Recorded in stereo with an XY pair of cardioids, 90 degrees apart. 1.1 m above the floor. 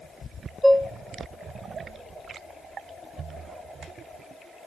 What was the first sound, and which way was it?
Dishes clattering, 5° right.